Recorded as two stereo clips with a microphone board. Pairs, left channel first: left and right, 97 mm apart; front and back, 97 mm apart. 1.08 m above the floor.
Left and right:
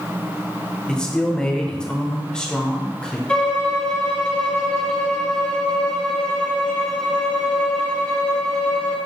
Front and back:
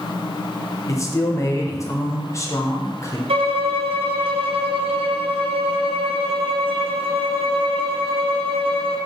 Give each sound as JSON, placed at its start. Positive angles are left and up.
{"t": 0.9, "sound": "a man speaking", "azimuth_deg": 15, "distance_m": 0.6}
{"t": 3.3, "sound": "a violin", "azimuth_deg": 170, "distance_m": 0.7}